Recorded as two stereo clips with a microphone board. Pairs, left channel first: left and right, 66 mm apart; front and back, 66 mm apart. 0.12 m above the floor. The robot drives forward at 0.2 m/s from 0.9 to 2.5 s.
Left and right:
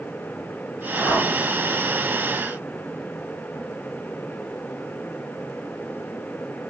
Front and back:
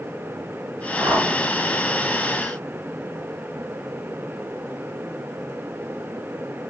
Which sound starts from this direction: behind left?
A whoosh, at 1.0 s.